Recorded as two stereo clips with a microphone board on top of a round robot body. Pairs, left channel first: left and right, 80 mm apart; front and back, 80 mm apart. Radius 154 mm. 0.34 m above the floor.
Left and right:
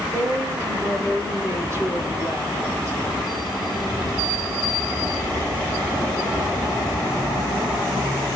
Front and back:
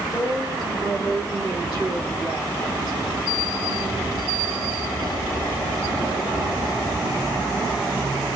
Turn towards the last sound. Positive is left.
turn(degrees=-35)